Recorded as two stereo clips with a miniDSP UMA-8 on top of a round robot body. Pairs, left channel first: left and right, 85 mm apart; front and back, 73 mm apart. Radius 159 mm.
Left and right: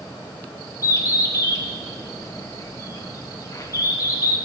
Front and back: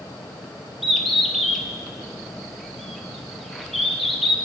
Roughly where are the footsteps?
No footsteps in this recording.